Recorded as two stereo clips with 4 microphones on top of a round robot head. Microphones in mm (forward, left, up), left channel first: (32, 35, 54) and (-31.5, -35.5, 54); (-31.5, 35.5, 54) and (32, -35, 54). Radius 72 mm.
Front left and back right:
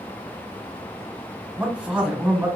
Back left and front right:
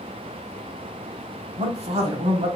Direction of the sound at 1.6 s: 55° right.